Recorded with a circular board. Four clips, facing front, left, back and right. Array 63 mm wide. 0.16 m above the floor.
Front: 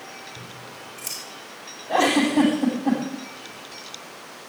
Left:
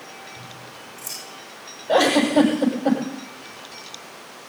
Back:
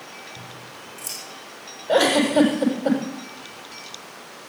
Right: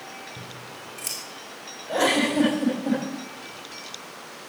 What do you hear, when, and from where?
0.4 s scissors: 75° right, 5.5 m
1.9 s a giggle: 140° left, 7.5 m